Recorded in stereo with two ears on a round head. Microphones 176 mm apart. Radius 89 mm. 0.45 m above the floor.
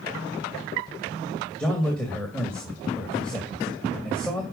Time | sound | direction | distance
1.6 | a man speaking | 5° left (ahead or behind) | 2 m